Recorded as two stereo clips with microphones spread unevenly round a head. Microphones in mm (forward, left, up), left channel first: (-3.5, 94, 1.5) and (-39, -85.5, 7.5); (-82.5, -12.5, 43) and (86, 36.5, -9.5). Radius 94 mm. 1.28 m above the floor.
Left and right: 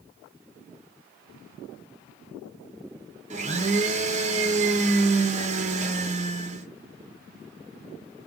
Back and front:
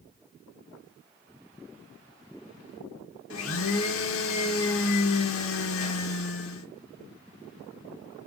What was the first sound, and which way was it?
A blender, 155° right.